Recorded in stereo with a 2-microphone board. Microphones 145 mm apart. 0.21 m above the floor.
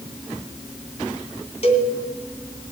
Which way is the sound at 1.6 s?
50° left (ahead or behind).